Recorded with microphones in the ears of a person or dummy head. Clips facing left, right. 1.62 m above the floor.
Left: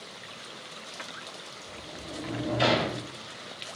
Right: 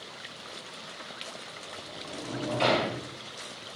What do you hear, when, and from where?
1.6 s a sliding door: 15° left (ahead or behind), 0.6 m